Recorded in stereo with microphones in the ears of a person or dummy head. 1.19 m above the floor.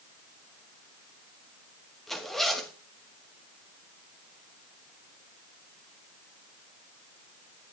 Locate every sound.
2.1 s a zipper: centre (ahead or behind), 1.2 m